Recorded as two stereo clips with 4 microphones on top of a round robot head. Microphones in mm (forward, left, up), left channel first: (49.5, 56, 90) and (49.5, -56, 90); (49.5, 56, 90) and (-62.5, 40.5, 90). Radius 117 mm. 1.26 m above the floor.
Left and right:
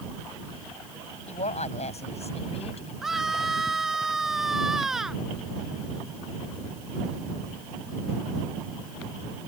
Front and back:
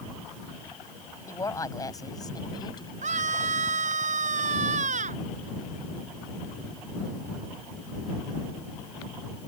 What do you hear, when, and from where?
1.3 s a woman speaking: 70° left; by 2.9 s 60° left
3.0 s a scream: 175° right